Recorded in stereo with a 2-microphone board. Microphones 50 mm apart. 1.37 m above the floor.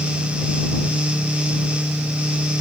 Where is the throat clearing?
No throat clearing in this recording.